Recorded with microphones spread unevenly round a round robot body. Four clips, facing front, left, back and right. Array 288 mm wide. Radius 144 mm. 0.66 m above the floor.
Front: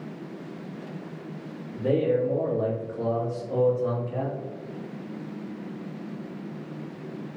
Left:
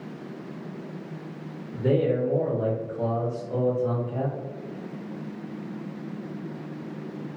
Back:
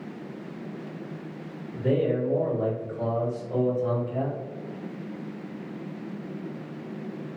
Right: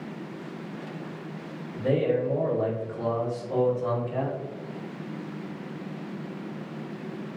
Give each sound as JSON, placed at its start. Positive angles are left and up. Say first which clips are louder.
{"t": 1.7, "sound": "a man speaking", "louder": "left 1 dB, front 1 dB", "azimuth_deg": 55, "distance_m": 1.2}